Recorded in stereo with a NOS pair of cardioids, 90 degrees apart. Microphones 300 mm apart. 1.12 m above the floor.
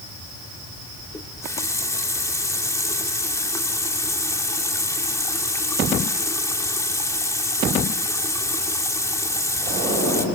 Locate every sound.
1.1 s a running tap: 10° left, 2.5 m